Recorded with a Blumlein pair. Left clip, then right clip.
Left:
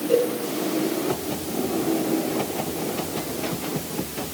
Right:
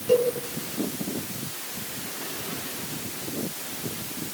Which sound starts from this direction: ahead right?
A cowbell, at 0.1 s.